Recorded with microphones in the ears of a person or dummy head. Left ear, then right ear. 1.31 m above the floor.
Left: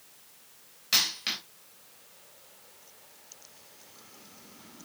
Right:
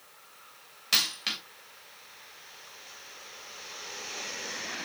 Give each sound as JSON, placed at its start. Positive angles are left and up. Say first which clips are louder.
{"t": 0.9, "sound": "a dropped coin", "louder": "even", "side_deg": -15, "distance_m": 3.0}